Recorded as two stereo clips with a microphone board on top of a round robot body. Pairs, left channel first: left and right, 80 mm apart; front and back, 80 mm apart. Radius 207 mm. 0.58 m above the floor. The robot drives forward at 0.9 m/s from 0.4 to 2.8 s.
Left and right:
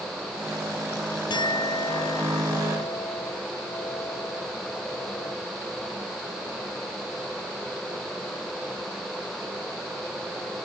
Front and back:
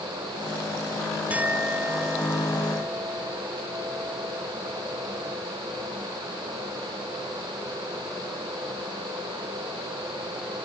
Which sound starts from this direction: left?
A clink, at 1.3 s.